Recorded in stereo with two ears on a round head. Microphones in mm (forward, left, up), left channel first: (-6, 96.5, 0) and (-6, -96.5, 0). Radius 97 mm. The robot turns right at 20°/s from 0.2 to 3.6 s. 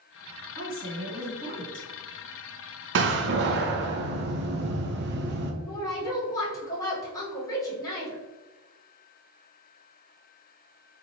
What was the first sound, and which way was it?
A woman speaking, 60° right (ahead or behind).